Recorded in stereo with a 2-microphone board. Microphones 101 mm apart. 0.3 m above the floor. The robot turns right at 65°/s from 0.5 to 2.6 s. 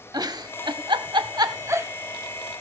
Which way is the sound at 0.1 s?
45° right (ahead or behind).